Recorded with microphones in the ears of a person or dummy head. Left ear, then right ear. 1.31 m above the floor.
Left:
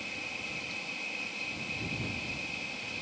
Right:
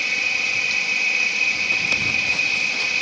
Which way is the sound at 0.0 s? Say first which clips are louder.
Right 17 dB; 75° right (ahead or behind).